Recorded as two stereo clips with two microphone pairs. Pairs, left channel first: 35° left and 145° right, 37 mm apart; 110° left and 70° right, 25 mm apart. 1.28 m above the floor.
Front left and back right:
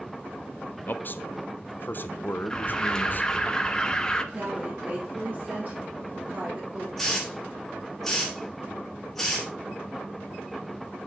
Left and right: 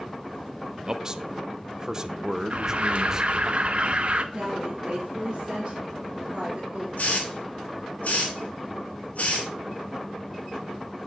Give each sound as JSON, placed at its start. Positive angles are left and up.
{"t": 0.9, "sound": "a man speaking", "azimuth_deg": 0, "distance_m": 0.6}
{"t": 2.5, "sound": "an alarm", "azimuth_deg": -35, "distance_m": 0.7}
{"t": 4.3, "sound": "a woman speaking", "azimuth_deg": -105, "distance_m": 1.9}
{"t": 7.0, "sound": "a hiss", "azimuth_deg": 115, "distance_m": 2.0}